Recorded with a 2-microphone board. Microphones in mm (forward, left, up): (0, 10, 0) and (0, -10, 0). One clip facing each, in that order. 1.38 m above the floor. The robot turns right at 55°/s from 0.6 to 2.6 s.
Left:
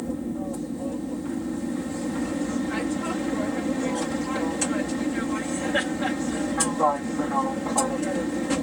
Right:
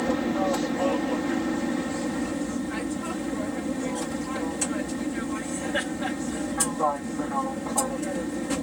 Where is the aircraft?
100° right; by 8.6 s 10° left.